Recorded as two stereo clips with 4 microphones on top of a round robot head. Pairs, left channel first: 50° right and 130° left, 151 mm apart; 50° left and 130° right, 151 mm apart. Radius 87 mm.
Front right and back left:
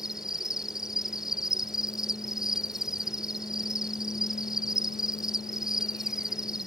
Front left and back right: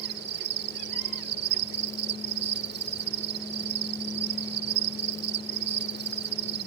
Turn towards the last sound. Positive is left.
turn(degrees=-140)